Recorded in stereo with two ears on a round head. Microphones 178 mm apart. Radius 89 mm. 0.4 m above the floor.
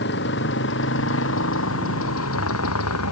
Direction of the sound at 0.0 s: 60° left (ahead or behind).